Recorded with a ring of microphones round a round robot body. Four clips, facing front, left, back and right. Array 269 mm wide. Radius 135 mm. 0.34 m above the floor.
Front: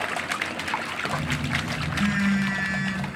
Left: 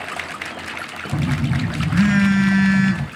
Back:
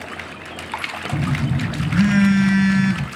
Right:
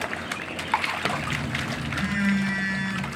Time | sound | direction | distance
1.1 | a phone buzzing | 125° left | 0.5 m